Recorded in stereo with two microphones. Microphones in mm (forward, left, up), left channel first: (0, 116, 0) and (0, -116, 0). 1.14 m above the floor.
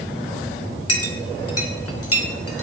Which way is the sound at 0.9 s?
75° left (ahead or behind).